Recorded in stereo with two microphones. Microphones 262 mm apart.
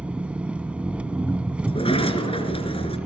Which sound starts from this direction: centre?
An engine running, at 0.0 s.